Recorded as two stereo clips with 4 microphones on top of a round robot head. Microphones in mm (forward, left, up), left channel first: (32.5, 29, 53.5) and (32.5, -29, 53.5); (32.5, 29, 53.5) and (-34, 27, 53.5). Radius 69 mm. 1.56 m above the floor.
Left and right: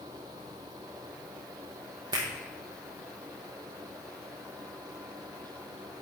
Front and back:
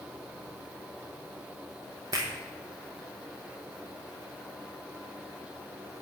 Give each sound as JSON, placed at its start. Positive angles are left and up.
{"t": 2.1, "sound": "a finger snap", "azimuth_deg": -125, "distance_m": 0.8}